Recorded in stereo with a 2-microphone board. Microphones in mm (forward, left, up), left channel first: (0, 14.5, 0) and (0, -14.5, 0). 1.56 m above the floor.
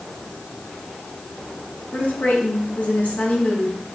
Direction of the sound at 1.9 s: 80° left.